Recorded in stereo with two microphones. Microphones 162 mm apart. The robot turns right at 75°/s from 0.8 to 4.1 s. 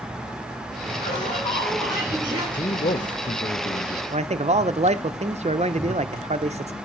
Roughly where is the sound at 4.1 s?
Right.